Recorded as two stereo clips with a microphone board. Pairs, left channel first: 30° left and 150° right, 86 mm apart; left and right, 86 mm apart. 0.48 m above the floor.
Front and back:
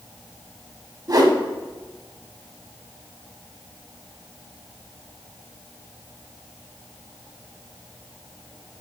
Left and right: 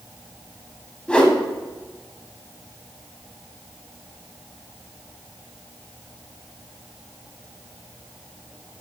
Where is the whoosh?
170° left, 0.7 m.